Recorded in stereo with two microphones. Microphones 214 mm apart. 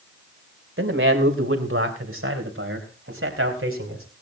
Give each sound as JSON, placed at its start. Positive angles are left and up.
{"t": 0.8, "sound": "a man speaking", "side_deg": -70, "distance_m": 2.5}